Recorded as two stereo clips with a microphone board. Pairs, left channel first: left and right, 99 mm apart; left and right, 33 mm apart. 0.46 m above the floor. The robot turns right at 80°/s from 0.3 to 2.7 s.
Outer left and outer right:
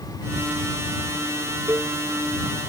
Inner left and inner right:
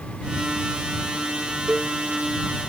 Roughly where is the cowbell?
Right.